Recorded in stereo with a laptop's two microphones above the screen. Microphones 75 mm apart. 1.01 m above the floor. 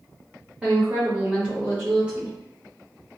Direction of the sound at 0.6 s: 15° right (ahead or behind).